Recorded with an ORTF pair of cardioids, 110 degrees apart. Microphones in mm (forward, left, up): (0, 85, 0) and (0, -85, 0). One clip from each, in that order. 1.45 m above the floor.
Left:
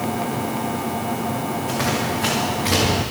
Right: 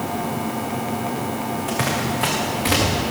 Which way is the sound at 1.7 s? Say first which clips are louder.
Even; 50° right.